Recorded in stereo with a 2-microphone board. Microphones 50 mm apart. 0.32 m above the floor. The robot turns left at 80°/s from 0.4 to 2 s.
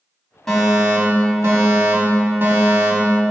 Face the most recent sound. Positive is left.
turn(degrees=-115)